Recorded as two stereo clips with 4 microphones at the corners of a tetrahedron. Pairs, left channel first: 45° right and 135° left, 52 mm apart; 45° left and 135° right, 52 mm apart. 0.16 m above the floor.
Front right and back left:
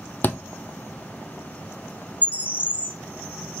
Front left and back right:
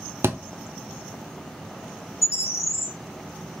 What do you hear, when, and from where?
0.2 s a thud: 95° right, 0.6 m
2.2 s a bird: 75° left, 1.1 m